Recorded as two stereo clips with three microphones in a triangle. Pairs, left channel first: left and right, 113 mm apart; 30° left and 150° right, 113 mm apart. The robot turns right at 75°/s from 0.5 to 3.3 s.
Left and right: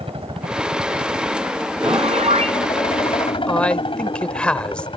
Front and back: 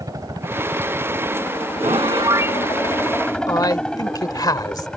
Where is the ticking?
I don't hear ticking.